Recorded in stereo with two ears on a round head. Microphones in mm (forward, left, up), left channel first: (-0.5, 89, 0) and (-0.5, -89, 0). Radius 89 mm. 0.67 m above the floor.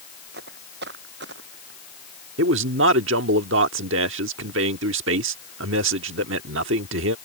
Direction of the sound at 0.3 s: 55° right (ahead or behind).